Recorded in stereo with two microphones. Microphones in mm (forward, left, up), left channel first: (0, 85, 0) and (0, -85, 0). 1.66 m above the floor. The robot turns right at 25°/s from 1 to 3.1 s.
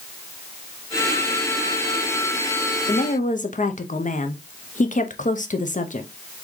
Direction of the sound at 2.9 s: 45° left (ahead or behind).